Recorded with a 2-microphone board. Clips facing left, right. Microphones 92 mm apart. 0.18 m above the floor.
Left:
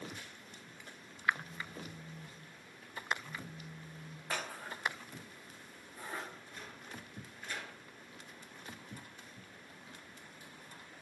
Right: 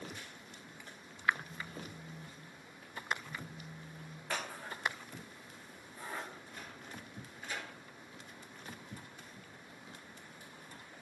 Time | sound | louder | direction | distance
1.3 | a phone buzzing | even | 25° left (ahead or behind) | 4 m
4.3 | scissors | even | 15° left (ahead or behind) | 5 m
6.3 | a sliding door | right 1 dB | 10° right (ahead or behind) | 2.5 m